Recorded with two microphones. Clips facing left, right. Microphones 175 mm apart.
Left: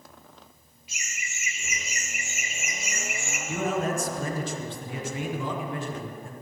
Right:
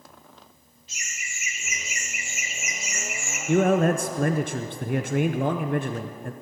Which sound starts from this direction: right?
A man speaking, at 3.5 s.